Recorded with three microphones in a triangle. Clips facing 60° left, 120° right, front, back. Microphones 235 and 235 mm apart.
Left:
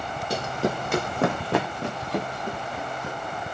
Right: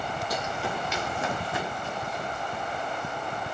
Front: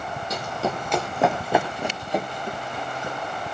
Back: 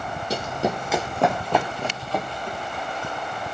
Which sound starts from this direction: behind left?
Running footsteps, at 0.3 s.